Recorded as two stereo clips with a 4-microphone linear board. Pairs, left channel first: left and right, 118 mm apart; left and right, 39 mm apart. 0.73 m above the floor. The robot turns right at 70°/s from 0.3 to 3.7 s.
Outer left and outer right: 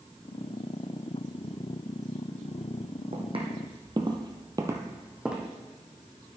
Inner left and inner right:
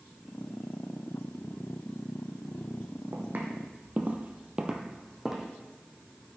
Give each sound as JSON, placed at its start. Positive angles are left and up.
{"t": 3.1, "sound": "footsteps", "side_deg": -60, "distance_m": 1.7}